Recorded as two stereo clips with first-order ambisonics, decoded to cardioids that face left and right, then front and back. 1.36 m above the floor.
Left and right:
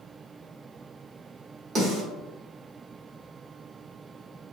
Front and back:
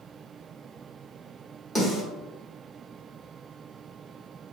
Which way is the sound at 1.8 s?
50° right.